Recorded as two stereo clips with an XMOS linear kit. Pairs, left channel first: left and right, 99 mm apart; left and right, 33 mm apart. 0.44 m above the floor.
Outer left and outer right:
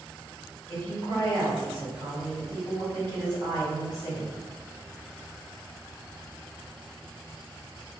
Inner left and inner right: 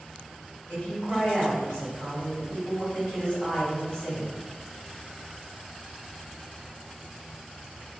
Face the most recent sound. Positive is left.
turn(degrees=50)  # may be behind; listen again after turning